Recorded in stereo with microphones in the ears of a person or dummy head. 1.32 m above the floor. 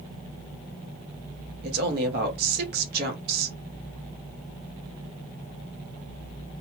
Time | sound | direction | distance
1.6 | a woman speaking | 55° right (ahead or behind) | 1.0 m